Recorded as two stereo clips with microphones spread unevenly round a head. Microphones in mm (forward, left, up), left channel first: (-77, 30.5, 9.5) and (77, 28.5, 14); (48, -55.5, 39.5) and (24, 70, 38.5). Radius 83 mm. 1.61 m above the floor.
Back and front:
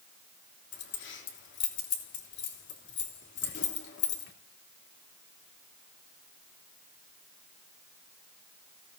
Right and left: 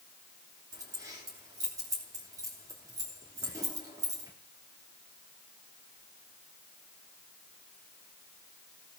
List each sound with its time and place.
0.7 s keys jangling: 170° left, 3 m